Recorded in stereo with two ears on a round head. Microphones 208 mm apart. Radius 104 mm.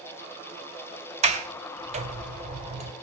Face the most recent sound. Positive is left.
turn(degrees=-30)  # may be behind; listen again after turning